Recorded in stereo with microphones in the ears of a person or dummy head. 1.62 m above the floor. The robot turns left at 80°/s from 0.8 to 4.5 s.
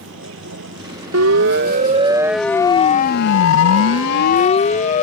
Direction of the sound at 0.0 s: 70° right (ahead or behind).